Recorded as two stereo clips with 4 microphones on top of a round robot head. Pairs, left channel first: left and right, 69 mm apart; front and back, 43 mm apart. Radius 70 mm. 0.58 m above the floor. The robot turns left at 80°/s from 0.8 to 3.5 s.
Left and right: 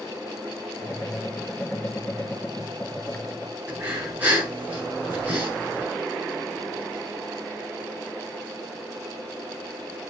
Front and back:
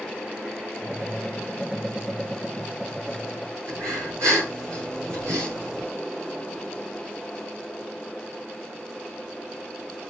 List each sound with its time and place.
3.7 s breathing: 160° right, 7.5 m